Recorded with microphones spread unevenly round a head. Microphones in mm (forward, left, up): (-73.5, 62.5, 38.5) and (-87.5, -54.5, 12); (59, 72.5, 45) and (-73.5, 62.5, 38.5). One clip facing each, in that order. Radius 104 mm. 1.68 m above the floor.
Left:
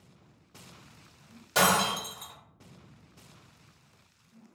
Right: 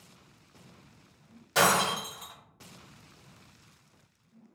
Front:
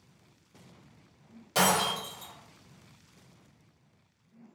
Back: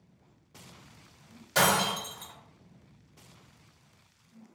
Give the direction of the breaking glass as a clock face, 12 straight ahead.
11 o'clock.